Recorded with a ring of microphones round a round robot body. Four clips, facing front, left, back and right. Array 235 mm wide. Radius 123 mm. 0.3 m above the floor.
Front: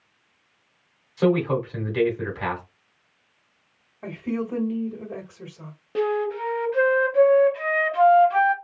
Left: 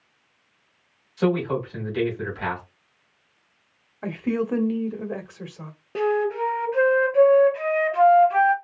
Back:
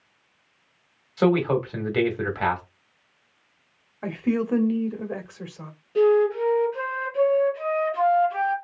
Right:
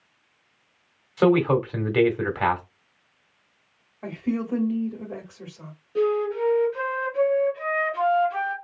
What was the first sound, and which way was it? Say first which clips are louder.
A man speaking: right 4 dB, back 1 dB; 120° right.